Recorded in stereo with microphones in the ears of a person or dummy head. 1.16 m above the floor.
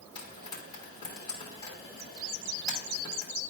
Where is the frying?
25° left (ahead or behind), 2.5 m.